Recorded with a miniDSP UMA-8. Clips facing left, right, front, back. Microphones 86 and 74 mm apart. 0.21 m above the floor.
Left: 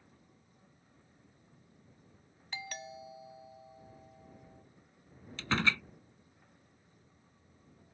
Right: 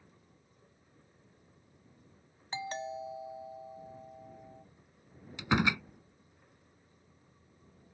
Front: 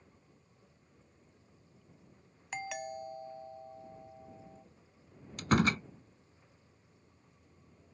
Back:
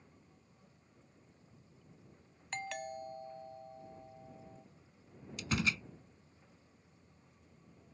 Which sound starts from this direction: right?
A doorbell, at 2.5 s.